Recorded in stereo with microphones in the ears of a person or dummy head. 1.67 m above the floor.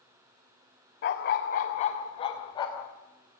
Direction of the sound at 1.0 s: 45° left (ahead or behind).